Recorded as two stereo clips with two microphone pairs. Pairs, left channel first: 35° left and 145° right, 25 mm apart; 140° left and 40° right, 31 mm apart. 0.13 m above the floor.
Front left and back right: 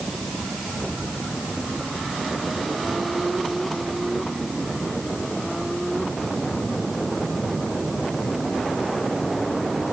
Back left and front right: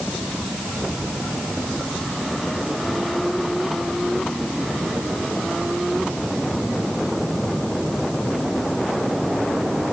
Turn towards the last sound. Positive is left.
No sound to turn to.